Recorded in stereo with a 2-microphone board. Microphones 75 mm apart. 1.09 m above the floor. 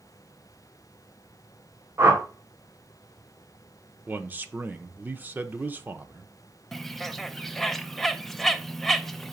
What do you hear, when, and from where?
2.0 s a whoosh: 35° right (ahead or behind), 1.7 m
4.1 s a man speaking: 25° right (ahead or behind), 0.7 m
6.7 s a bird: 5° left (ahead or behind), 0.5 m